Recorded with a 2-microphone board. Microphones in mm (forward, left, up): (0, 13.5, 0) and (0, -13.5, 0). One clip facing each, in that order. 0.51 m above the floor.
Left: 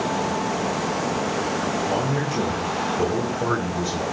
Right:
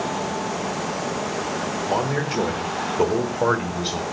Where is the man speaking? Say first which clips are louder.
Right 1 dB; 30° right (ahead or behind), 1.8 m; by 4.0 s 60° right (ahead or behind), 2.5 m.